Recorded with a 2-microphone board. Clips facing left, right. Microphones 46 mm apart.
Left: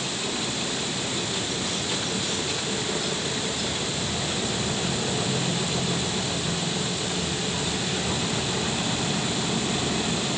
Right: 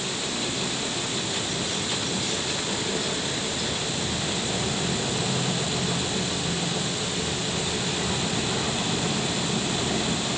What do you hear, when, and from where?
Only background noise.